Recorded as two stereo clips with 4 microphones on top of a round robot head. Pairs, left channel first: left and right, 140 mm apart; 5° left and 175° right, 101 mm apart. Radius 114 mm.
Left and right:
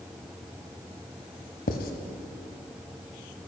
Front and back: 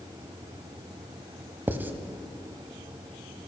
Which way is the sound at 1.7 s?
115° left.